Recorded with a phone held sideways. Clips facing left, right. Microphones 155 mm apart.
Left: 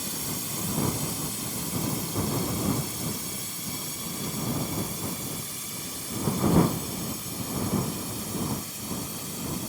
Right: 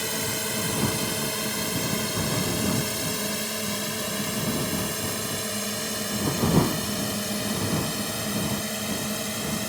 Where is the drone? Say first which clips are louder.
Right 5 dB; 80° right.